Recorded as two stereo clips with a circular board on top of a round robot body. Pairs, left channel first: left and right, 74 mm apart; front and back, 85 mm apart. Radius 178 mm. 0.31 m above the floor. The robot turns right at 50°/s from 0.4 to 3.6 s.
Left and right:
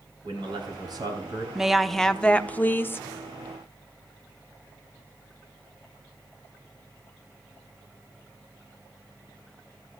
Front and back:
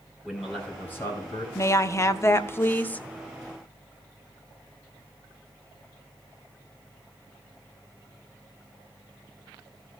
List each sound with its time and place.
0.2 s a man speaking: 90° right, 4 m; by 1.4 s 40° right, 4 m
1.6 s a woman speaking: 15° right, 1.0 m; by 3.0 s 60° left, 1.0 m